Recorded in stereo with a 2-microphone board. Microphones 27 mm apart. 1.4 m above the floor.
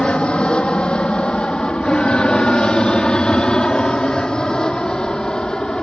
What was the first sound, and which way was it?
An aircraft, 40° left (ahead or behind).